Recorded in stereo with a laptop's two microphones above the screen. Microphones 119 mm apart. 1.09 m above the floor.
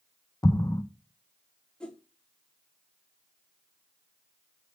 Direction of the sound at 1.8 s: 5° left (ahead or behind).